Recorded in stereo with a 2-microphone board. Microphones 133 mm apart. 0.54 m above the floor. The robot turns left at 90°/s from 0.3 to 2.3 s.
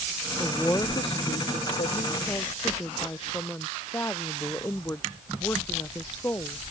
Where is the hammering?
I don't hear hammering.